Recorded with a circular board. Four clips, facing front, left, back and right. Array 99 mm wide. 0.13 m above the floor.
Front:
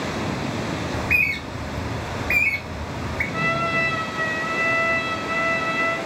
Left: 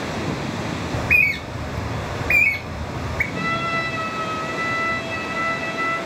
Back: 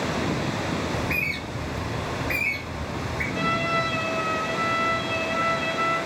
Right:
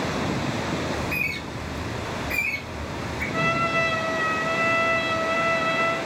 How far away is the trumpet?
About 2 m.